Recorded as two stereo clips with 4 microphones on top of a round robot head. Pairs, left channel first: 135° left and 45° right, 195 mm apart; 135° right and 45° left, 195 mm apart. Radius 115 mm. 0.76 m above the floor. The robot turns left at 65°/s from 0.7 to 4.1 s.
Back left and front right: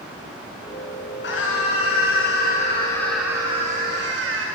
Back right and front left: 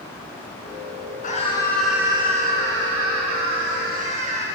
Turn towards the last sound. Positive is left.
turn(degrees=-15)